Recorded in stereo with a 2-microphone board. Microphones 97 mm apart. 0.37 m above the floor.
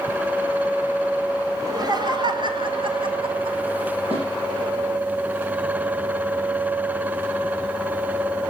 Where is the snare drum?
85° right, 7 m.